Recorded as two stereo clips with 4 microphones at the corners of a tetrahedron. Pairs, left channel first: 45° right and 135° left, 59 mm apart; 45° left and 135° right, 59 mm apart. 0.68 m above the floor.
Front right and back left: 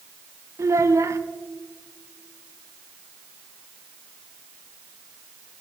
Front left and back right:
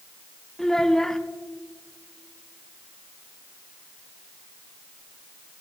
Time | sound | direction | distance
0.6 | a child speaking | 125° left | 0.8 m